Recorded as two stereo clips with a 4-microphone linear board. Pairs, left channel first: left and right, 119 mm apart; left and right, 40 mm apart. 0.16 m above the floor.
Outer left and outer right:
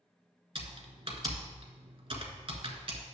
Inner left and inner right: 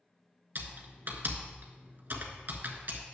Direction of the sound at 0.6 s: 50° right (ahead or behind).